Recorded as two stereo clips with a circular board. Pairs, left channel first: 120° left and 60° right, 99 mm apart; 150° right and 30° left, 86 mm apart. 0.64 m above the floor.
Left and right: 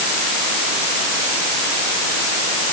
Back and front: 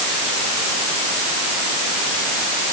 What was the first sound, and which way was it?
Only background noise.